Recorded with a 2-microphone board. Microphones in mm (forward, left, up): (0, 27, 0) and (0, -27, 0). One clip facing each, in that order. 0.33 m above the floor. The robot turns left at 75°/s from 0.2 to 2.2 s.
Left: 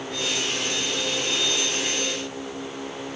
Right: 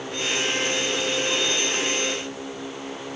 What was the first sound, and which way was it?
Only background noise.